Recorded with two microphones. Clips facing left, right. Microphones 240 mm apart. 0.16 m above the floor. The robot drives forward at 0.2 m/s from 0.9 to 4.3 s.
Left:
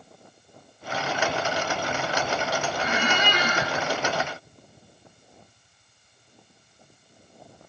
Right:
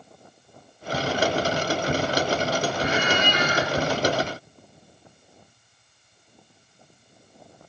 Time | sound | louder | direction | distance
2.8 | a squeak | right 2 dB | 75° left (ahead or behind) | 0.7 m